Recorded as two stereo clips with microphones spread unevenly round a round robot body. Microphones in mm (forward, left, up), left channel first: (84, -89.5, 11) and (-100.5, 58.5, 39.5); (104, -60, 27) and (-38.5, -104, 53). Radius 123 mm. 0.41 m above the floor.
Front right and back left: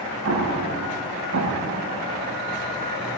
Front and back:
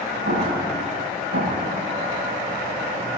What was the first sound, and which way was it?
An explosion, 175° right.